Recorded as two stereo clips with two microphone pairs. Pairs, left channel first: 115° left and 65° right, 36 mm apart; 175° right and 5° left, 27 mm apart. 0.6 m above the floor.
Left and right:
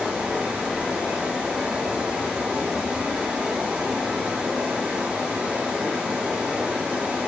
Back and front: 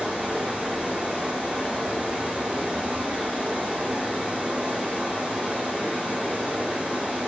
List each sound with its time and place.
0.0 s running water: 5° left, 6 m